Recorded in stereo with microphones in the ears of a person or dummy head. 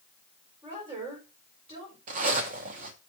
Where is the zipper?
45° right (ahead or behind), 1.1 m.